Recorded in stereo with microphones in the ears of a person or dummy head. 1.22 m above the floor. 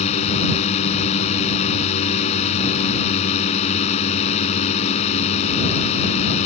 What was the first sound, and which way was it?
A drone, 35° left (ahead or behind).